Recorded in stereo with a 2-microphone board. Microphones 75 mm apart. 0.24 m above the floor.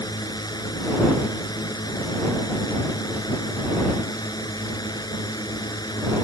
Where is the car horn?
I don't hear a car horn.